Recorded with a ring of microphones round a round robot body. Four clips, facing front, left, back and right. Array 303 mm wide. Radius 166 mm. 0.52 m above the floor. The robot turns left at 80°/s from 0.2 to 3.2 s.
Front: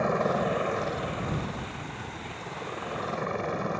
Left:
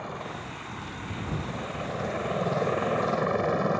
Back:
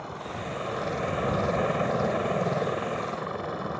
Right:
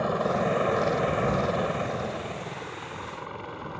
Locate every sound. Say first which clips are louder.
0.0 s a helicopter: right 11 dB, front 10 dB; 35° right; by 3.8 s 85° left